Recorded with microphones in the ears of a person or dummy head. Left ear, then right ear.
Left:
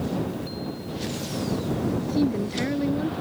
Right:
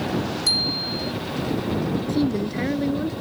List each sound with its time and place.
0.5 s a bicycle bell: 85° right
2.0 s a woman speaking: 5° right (ahead or behind)